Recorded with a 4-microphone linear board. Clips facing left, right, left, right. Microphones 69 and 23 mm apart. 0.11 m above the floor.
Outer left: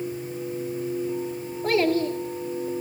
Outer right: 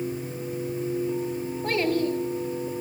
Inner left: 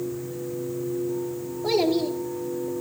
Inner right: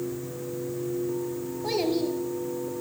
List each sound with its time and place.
1.6 s a child speaking: 5° left (ahead or behind), 1.9 m